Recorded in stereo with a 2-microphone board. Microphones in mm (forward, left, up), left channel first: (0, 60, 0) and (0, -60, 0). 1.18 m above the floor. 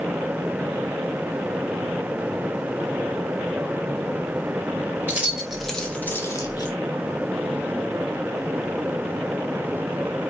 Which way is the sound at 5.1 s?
15° right (ahead or behind).